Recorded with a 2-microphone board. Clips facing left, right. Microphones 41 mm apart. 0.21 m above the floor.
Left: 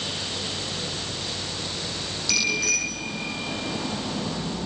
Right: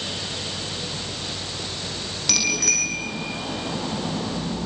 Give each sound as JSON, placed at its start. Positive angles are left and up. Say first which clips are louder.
{"t": 2.3, "sound": "a bicycle bell", "louder": "even", "side_deg": -65, "distance_m": 6.0}